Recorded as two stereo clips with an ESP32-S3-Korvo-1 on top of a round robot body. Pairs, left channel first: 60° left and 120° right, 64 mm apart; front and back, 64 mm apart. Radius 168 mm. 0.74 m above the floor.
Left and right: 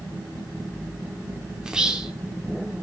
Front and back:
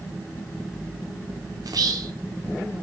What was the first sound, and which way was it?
Whispering, 160° left.